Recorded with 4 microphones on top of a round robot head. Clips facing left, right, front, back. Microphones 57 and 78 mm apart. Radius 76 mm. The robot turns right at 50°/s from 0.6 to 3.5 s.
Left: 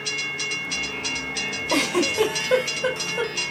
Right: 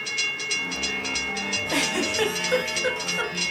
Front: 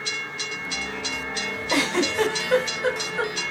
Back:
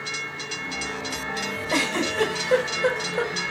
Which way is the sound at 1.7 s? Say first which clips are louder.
Left 4 dB, front 2 dB; 65° left.